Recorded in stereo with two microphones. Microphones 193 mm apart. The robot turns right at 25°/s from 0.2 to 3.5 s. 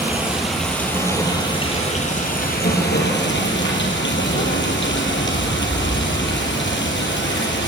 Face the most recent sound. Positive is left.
turn(degrees=75)